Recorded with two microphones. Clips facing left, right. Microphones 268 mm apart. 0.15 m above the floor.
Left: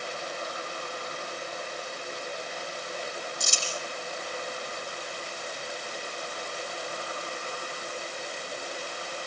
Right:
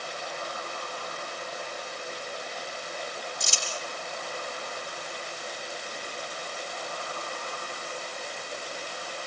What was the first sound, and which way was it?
Crumpling, 50° left (ahead or behind).